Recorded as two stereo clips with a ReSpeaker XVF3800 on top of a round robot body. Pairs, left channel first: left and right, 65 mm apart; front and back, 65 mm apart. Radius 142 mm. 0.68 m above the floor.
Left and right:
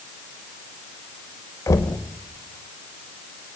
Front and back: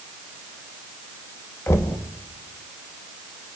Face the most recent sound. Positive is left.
turn(degrees=50)